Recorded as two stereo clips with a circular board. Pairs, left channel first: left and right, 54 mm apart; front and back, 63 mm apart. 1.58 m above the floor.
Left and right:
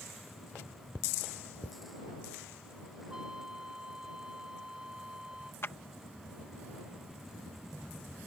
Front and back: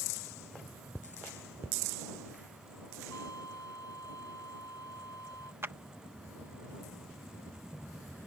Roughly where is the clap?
Behind left.